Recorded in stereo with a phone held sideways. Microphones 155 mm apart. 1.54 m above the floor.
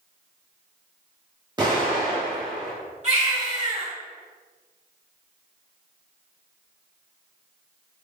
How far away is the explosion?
About 1.1 m.